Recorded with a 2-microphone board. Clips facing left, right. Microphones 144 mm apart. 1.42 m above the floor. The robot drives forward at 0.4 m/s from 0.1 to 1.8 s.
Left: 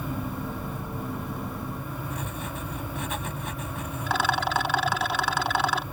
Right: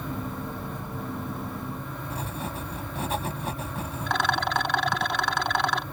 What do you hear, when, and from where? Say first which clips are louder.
2.1 s writing: right 1 dB; 35° right (ahead or behind)
4.1 s a rattle: left 1 dB; 5° left (ahead or behind)